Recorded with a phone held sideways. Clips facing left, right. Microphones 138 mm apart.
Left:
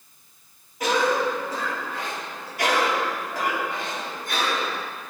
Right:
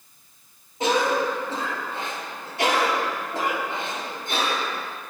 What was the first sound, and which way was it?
A cough, 25° right (ahead or behind).